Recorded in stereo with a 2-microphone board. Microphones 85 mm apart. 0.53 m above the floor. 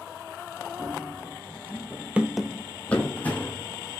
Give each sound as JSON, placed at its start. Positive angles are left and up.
{"t": 0.8, "sound": "running footsteps", "side_deg": -20, "distance_m": 1.9}